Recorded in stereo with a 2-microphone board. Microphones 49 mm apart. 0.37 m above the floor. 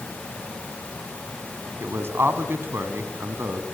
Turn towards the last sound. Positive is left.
turn(degrees=-60)  # may be behind; listen again after turning